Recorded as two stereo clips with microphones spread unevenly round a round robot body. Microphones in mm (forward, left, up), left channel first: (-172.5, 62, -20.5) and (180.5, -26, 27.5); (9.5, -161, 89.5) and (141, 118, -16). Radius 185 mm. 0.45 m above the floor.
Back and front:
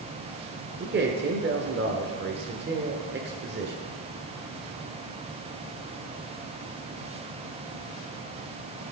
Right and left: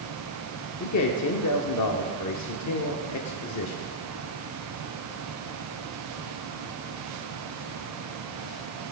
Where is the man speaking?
75° right, 1.2 m.